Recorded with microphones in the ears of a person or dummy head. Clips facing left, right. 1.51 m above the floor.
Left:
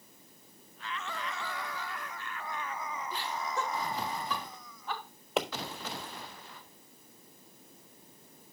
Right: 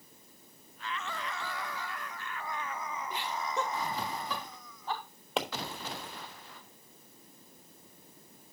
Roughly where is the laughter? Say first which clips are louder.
Right 1 dB; centre.